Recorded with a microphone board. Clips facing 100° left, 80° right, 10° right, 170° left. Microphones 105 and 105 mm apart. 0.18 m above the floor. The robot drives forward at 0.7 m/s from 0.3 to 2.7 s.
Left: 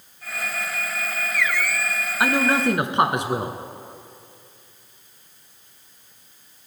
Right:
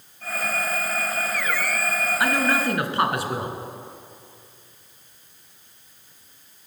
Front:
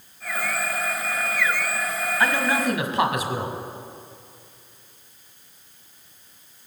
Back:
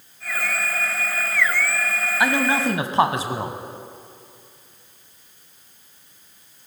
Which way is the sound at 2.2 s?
115° left.